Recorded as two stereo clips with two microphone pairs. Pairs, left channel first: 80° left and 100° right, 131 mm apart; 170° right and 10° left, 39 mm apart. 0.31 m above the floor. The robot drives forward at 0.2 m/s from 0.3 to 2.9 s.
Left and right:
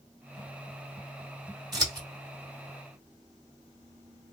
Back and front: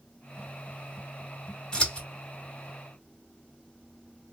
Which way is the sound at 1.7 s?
130° right.